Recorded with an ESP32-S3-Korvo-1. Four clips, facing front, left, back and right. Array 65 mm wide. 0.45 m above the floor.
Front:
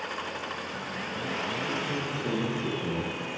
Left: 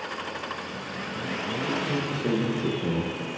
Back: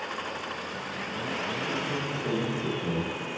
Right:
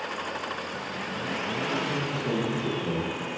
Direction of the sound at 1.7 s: 90° left.